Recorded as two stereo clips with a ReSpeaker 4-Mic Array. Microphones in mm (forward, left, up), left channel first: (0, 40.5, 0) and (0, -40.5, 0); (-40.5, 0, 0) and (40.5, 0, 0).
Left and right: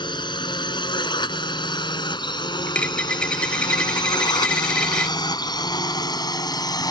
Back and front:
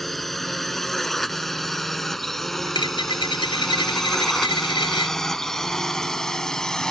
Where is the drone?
95° left; by 6.9 s 100° left.